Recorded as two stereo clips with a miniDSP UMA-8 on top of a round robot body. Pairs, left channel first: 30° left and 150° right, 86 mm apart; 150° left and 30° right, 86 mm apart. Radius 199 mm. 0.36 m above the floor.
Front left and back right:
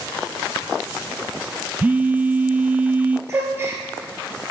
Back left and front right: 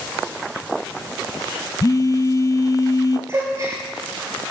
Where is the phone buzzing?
150° left, 0.6 m.